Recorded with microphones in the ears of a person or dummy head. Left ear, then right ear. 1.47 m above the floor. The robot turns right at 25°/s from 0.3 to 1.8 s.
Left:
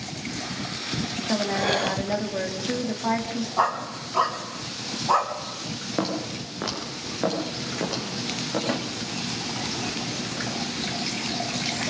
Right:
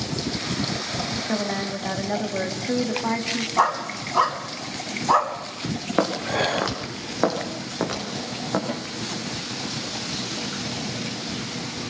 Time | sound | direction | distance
1.3 | a woman speaking | 5° left (ahead or behind) | 2 m
3.6 | a dog barking | 15° right (ahead or behind) | 3 m
6.0 | footsteps | 40° right (ahead or behind) | 5 m
8.7 | a snare drum | 55° left (ahead or behind) | 2 m